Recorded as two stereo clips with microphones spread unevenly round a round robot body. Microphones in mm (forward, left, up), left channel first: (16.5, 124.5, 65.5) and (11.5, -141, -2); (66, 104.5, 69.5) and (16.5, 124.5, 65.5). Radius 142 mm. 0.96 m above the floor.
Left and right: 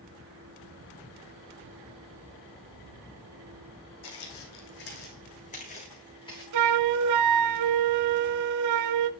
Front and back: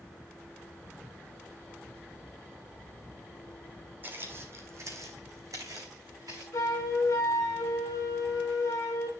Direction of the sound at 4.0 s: 105° left.